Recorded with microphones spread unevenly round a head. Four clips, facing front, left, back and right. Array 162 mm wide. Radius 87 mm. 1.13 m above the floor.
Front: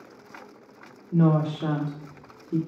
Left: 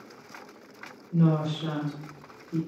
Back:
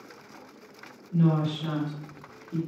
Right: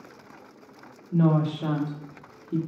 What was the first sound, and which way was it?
A woman speaking, 40° right.